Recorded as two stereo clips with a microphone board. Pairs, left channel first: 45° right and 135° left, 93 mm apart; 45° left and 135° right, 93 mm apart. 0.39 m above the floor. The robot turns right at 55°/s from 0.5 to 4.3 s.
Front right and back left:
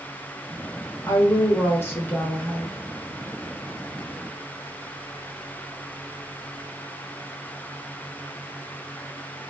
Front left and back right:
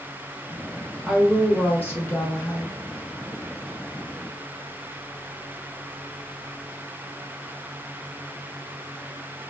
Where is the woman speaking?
50° right, 0.9 m; by 2.8 s 45° left, 0.9 m.